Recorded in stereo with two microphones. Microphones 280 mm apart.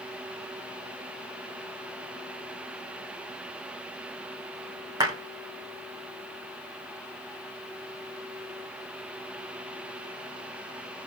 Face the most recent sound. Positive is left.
turn(degrees=-15)  # may be behind; listen again after turning